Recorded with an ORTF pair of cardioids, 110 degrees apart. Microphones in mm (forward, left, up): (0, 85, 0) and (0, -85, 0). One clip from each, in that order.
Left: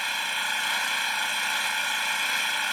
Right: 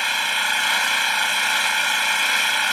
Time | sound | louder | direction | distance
0.0 | an engine running | right 7 dB | 35° right | ?